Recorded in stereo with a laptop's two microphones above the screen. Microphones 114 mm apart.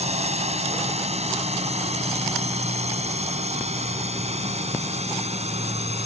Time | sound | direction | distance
0.0 | a drone | 80° right | ?